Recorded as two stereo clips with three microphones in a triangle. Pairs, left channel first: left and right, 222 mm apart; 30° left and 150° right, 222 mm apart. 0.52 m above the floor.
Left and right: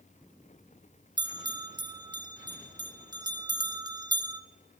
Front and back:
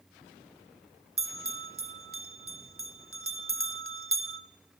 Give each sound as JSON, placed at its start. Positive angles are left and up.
{"t": 1.2, "sound": "a bell", "azimuth_deg": -165, "distance_m": 0.6}